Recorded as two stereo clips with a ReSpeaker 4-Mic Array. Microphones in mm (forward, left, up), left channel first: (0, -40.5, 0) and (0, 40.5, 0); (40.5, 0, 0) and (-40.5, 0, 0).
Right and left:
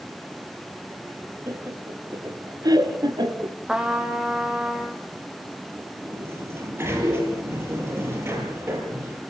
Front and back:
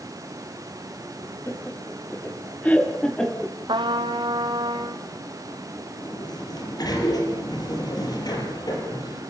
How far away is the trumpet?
About 2 m.